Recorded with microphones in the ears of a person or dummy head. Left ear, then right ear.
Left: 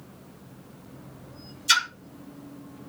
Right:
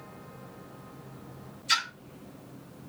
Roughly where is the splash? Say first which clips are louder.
Left 5 dB; left.